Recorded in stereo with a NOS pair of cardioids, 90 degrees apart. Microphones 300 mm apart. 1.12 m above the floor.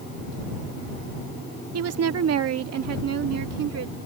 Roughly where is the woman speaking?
Ahead right.